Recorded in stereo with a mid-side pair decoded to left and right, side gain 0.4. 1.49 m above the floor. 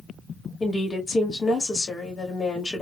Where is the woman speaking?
35° left, 2 m.